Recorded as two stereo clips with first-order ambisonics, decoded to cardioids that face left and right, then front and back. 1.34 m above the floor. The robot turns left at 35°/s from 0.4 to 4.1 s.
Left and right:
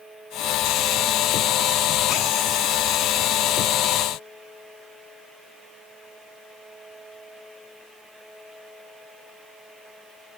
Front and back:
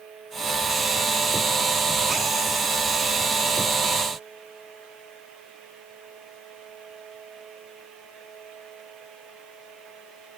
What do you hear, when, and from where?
Only background noise.